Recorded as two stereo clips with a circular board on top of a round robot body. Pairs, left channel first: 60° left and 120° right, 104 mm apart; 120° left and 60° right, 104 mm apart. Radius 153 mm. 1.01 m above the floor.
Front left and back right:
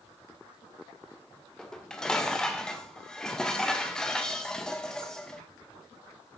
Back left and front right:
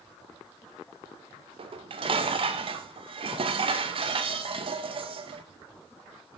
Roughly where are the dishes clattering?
Ahead right.